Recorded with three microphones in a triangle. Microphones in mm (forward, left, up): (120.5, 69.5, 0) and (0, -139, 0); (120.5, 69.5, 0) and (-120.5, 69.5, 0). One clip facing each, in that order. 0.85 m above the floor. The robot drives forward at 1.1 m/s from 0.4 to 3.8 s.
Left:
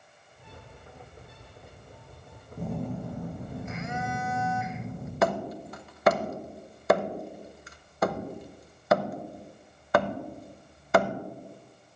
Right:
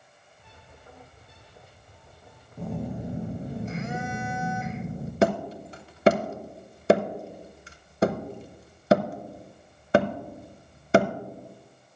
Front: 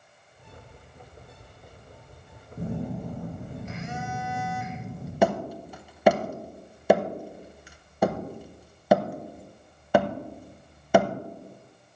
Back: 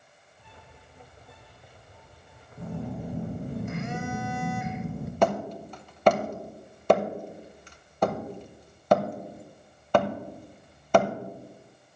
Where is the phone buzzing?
20° right, 0.8 m; by 5.1 s 170° right, 1.1 m.